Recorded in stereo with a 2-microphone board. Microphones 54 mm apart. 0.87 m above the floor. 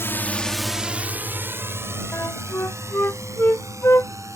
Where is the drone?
45° left (ahead or behind); by 4.4 s 60° right (ahead or behind).